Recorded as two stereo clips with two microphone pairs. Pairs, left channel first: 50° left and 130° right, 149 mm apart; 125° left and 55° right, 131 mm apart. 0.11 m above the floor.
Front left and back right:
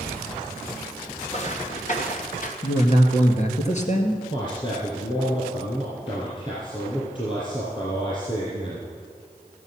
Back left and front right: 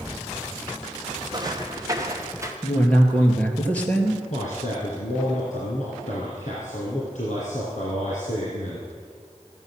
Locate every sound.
1.3 s footsteps: 5° left, 1.8 m; by 2.5 s 15° left, 2.5 m
2.6 s a man speaking: 45° left, 2 m
4.3 s a man speaking: 105° left, 3 m